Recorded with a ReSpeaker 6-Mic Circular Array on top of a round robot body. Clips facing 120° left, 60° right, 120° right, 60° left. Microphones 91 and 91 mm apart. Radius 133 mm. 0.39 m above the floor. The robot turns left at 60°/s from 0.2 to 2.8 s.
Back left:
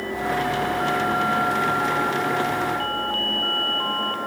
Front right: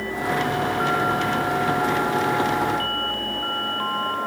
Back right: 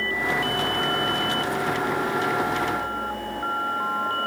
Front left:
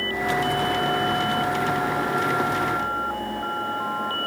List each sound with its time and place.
Only background noise.